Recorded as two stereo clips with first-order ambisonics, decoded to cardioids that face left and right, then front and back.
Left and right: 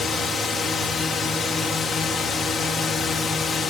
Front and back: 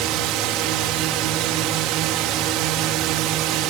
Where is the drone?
155° left.